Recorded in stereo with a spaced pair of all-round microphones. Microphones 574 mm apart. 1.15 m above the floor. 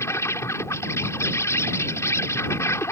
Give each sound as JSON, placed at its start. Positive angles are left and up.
{"t": 0.0, "sound": "an insect", "side_deg": 5}